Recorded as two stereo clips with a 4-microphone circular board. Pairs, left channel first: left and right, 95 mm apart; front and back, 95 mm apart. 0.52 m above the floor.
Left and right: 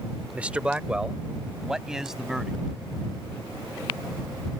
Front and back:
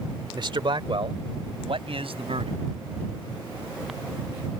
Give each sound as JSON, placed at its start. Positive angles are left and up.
{"t": 0.3, "sound": "a man speaking", "azimuth_deg": -165}